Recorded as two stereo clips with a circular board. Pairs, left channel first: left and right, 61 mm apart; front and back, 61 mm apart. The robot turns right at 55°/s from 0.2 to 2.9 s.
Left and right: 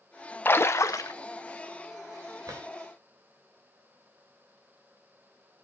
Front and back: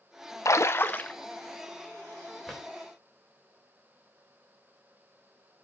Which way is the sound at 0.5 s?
30° left.